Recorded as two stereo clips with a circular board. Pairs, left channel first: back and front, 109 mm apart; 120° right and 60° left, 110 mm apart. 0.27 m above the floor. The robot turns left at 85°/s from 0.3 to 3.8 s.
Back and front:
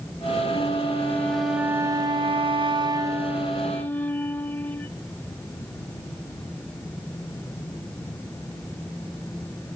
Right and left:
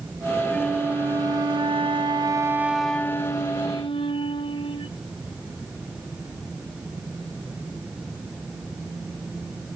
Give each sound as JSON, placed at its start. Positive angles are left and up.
{"t": 0.5, "sound": "a flute", "azimuth_deg": 165, "distance_m": 0.6}